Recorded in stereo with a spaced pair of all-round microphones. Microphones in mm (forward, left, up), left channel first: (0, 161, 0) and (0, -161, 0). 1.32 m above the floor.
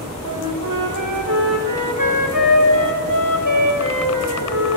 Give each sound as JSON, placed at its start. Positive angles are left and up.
{"t": 0.2, "sound": "a flute", "side_deg": -75, "distance_m": 4.0}